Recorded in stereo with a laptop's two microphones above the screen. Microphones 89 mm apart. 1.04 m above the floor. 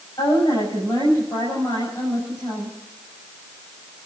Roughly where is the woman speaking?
Left.